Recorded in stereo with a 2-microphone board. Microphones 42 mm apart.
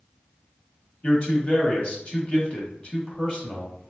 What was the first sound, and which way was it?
A man speaking, 25° left (ahead or behind).